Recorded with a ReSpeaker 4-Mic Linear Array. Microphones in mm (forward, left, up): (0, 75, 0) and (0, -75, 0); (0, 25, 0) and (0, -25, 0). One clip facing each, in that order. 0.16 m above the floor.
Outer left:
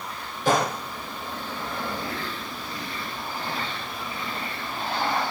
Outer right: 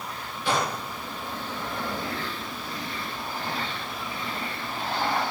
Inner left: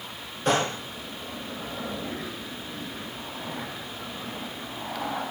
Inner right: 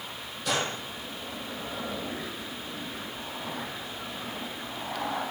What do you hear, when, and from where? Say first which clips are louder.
0.5 s a gunshot: outer left 4 dB, inner left 5 dB; 45° left (ahead or behind), 1.6 m